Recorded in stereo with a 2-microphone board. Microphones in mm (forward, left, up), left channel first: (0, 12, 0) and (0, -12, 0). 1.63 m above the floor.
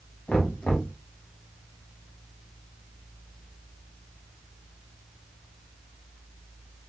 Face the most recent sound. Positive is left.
turn(degrees=85)